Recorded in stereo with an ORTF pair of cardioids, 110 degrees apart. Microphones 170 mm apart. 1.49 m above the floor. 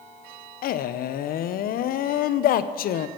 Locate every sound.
0.6 s a man speaking: 60° left, 0.8 m